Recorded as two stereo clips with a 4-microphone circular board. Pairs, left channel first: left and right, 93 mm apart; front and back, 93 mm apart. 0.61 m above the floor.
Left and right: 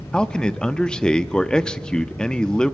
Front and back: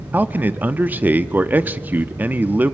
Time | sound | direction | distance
0.1 | a man speaking | 155° left | 0.7 m